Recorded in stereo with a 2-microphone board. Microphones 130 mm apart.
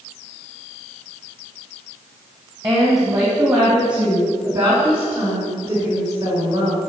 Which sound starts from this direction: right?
A woman speaking, at 2.6 s.